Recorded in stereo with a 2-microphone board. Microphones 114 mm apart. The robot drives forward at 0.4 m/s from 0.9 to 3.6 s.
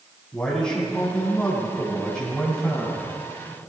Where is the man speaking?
10° left (ahead or behind), 7 m.